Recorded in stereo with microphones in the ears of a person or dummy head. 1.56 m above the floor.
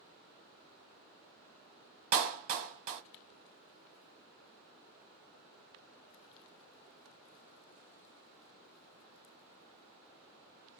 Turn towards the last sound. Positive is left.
turn(degrees=-40)  # may be behind; listen again after turning